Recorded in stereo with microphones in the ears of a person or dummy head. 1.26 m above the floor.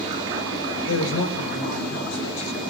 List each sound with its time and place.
0.8 s a man speaking: 85° left, 5.5 m